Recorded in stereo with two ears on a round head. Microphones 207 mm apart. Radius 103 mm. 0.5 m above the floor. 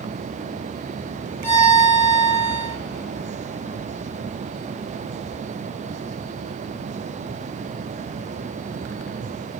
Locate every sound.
1.4 s a violin: 10° left (ahead or behind), 0.9 m